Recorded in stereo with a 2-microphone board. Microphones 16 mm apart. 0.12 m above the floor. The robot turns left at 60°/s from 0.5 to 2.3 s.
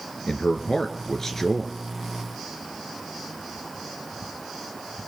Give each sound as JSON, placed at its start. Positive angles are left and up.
{"t": 0.3, "sound": "a man speaking", "azimuth_deg": 85, "distance_m": 1.9}